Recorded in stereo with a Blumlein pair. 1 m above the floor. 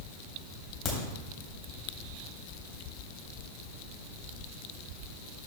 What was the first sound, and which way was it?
A crack, 25° left.